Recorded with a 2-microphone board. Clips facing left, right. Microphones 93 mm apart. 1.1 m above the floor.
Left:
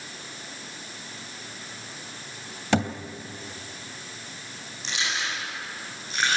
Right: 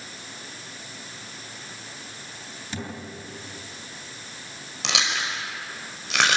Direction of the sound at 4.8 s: 80° right.